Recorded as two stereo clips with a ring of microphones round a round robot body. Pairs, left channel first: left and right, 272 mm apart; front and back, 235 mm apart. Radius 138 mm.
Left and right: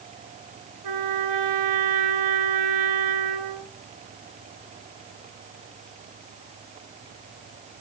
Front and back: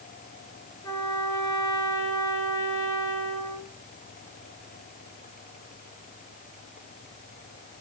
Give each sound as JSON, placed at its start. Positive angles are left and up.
{"t": 0.8, "sound": "a trumpet", "azimuth_deg": -75, "distance_m": 2.5}